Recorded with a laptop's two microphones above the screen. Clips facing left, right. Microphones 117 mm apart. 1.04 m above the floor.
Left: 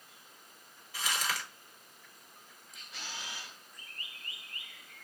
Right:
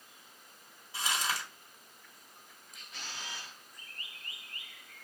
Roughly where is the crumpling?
Right.